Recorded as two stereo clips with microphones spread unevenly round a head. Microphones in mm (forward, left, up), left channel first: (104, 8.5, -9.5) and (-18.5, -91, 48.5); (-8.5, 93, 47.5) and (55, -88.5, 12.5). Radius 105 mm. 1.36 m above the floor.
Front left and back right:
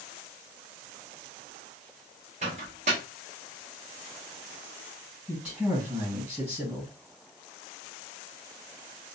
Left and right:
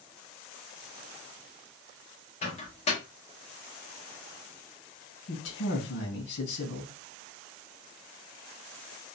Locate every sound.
2.4 s a microwave: 165° left, 1.0 m
5.3 s a man speaking: 130° left, 2.0 m